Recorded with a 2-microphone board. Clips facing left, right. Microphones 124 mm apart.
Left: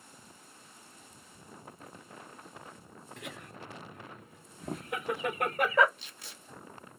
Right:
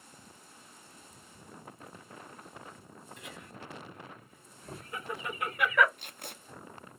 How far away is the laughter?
About 2.5 m.